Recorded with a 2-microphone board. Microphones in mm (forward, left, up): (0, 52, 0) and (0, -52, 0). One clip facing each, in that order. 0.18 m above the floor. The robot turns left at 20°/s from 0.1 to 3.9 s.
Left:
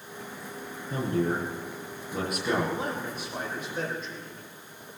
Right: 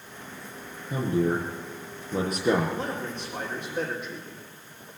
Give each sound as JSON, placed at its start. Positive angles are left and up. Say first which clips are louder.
{"t": 0.9, "sound": "a man speaking", "louder": "right 2 dB", "side_deg": -5, "distance_m": 7.0}
{"t": 2.7, "sound": "a man speaking", "louder": "even", "side_deg": 20, "distance_m": 7.0}